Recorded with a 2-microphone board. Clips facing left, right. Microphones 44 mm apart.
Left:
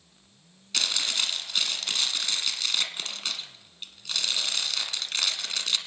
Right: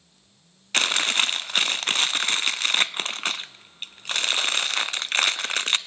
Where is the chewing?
45° right (ahead or behind), 0.7 m.